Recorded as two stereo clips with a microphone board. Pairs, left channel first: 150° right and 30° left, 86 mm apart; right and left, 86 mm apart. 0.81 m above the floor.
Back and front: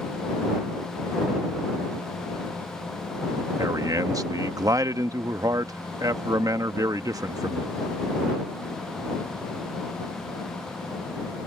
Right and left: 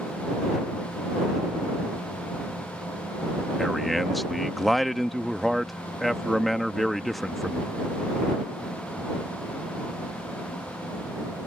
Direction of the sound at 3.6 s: 5° right.